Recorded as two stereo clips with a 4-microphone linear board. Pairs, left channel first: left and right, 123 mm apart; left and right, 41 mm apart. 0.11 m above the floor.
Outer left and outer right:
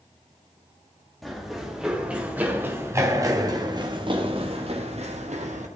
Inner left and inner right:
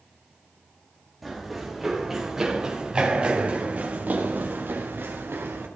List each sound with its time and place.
1.2 s running footsteps: centre (ahead or behind), 2.5 m; by 5.7 s 65° right (ahead or behind), 2.5 m